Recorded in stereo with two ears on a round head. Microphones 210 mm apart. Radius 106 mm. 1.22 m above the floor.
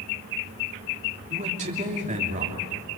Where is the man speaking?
30° right (ahead or behind), 3 m.